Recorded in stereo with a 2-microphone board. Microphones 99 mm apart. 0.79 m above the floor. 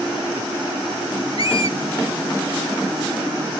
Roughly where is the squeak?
Left.